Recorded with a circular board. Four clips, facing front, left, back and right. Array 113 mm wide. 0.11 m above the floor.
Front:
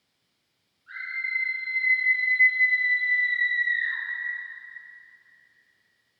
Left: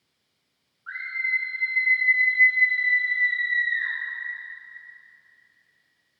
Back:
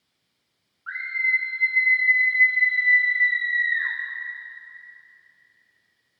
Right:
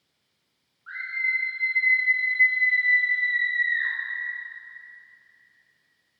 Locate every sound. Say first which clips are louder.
0.9 s a scream: even, back 7 dB; 170° left, 8.5 m; by 3.9 s 165° right, 9 m